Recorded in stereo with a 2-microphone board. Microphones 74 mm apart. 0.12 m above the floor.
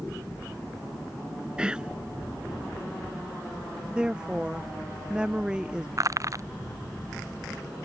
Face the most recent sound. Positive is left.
turn(degrees=-45)  # may be behind; listen again after turning